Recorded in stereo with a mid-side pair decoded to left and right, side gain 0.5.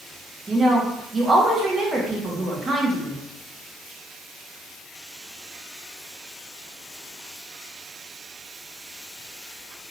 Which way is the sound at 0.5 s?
30° right.